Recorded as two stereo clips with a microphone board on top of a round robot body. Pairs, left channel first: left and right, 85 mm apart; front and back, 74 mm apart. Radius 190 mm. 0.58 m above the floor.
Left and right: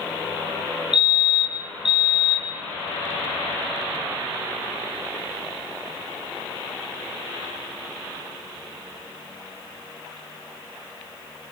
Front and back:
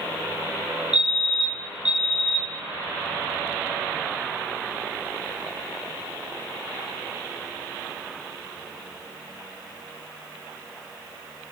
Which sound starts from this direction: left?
A fire alarm, at 0.9 s.